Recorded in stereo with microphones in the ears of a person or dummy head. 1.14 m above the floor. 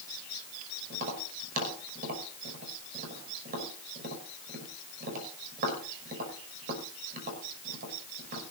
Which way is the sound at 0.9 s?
40° right (ahead or behind).